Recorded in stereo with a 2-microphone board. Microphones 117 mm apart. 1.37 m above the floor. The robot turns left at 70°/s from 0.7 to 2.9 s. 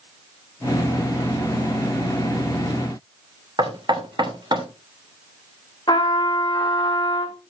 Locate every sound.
3.6 s knocking: 45° right (ahead or behind), 3 m
5.9 s a trumpet: 40° left (ahead or behind), 1.8 m